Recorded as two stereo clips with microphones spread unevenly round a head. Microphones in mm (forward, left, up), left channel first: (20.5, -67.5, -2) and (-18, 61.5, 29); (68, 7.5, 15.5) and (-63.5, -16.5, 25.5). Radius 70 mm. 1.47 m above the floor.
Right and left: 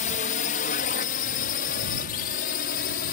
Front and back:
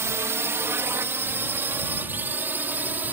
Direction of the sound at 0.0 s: 100° right.